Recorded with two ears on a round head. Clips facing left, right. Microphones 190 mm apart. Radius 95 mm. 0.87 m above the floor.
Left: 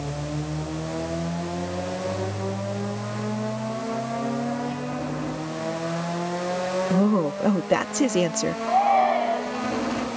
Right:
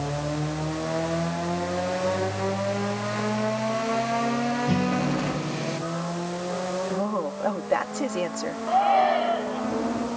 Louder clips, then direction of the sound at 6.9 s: Left 6 dB; 40° left (ahead or behind).